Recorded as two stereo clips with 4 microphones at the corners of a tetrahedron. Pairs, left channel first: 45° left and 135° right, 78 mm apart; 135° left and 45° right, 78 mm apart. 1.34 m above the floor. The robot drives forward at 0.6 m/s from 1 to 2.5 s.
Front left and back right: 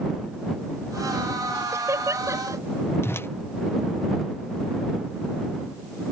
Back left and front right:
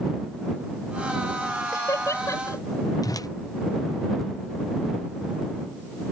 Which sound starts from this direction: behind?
Laughter, at 1.7 s.